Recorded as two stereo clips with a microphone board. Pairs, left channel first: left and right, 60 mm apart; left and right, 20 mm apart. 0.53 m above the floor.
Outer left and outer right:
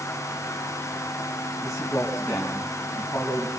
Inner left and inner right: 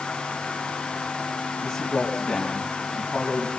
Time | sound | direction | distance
1.6 | a man speaking | 65° left (ahead or behind) | 4.5 m